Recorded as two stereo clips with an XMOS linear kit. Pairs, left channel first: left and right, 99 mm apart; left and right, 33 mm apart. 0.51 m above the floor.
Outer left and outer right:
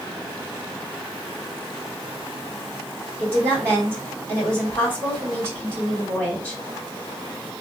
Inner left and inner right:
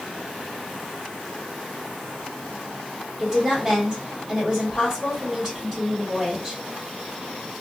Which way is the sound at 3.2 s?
20° right (ahead or behind).